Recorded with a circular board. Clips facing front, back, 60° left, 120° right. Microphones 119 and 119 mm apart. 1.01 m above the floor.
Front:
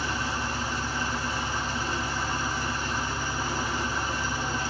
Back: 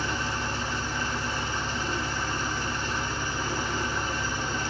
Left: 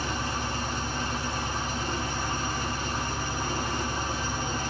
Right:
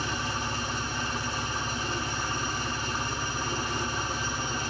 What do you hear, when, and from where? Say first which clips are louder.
0.0 s an engine running: even, left 1 dB; 75° left, 1.2 m